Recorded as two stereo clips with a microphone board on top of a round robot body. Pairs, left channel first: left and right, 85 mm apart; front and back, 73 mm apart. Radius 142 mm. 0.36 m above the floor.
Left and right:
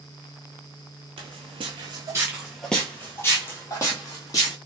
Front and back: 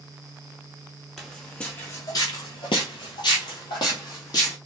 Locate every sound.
1.2 s footsteps: 85° right, 0.7 m; by 4.5 s 40° left, 1.4 m